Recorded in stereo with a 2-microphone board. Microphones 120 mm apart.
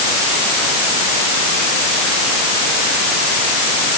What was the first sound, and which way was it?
Only background noise.